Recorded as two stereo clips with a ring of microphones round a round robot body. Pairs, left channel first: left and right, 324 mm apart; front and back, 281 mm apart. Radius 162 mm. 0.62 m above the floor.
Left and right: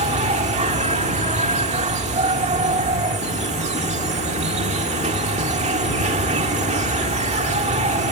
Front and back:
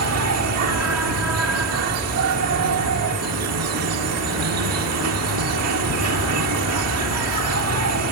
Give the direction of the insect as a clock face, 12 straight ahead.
5 o'clock.